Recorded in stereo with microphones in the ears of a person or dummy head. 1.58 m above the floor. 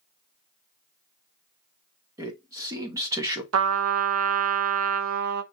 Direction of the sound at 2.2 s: 15° right (ahead or behind).